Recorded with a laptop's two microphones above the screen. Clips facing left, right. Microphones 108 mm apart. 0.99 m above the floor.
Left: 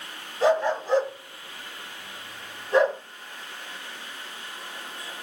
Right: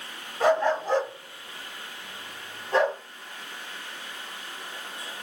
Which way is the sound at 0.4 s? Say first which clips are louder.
Even; 50° right (ahead or behind).